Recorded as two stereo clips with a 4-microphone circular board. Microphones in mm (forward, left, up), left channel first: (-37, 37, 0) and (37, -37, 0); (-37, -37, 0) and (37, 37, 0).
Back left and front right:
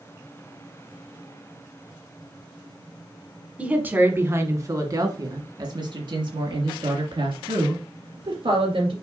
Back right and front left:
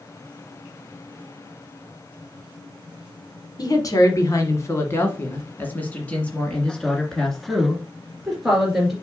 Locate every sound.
3.6 s a woman speaking: 115° right, 1.5 m; by 8.9 s 40° right, 3 m